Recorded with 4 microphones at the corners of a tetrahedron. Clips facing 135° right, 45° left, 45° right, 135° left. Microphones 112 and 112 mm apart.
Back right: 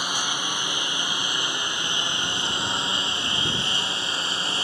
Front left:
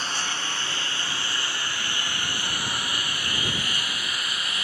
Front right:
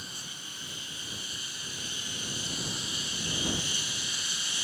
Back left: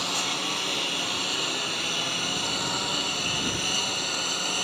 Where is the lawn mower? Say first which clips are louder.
Back right 2 dB, back left 16 dB; 150° left; by 4.7 s 165° left.